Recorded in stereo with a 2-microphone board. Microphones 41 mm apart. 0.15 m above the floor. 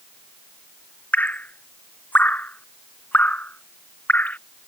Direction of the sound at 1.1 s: 45° left (ahead or behind).